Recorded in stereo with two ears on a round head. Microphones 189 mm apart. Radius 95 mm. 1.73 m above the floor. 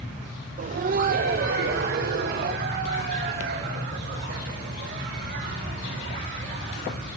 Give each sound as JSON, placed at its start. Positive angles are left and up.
{"t": 0.6, "sound": "laughter", "side_deg": -35, "distance_m": 0.6}